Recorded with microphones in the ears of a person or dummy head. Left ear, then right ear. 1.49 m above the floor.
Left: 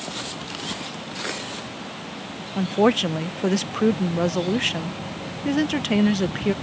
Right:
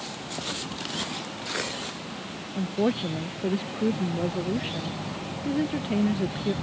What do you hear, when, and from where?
2.5 s a woman speaking: 45° left (ahead or behind)